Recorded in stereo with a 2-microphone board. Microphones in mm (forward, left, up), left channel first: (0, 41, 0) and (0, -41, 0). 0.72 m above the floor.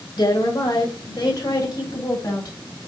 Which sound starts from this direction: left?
A woman speaking, at 0.2 s.